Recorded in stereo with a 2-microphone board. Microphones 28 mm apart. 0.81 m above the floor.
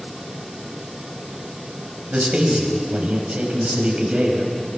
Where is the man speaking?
45° right (ahead or behind), 5 m.